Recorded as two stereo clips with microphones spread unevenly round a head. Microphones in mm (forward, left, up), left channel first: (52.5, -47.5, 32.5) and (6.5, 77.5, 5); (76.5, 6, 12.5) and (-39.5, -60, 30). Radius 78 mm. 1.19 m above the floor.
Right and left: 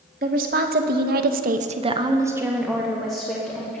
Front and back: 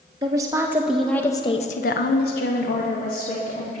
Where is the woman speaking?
145° left, 1.6 m; by 3.8 s 10° left, 2.5 m.